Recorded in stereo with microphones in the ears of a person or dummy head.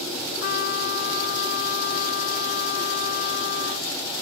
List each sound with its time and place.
0.4 s a trumpet: 65° left (ahead or behind)